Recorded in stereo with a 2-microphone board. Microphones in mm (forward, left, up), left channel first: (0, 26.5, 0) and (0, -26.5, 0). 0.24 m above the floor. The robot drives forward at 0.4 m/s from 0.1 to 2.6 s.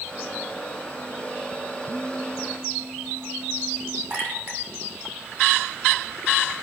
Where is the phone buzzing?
60° right (ahead or behind), 4.5 m; by 4.0 s 65° right (ahead or behind), 4.5 m.